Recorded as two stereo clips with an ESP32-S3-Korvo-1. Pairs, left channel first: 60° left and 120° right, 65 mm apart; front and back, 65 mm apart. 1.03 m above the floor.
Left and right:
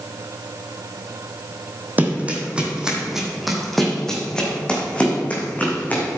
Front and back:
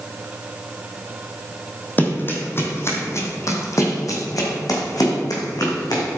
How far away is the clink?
I don't hear a clink.